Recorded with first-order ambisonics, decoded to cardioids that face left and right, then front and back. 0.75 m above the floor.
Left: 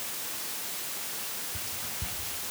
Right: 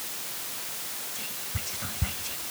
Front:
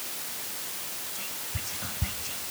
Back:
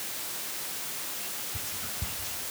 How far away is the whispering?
About 0.9 m.